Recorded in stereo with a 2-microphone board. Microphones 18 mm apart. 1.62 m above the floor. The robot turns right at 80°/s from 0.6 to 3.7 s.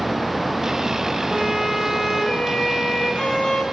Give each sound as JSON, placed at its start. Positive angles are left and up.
{"t": 1.3, "sound": "a violin", "azimuth_deg": -50, "distance_m": 7.5}